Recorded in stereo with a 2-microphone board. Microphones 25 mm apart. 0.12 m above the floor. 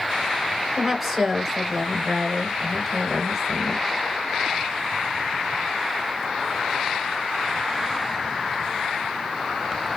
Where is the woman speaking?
10° right (ahead or behind), 1.2 m.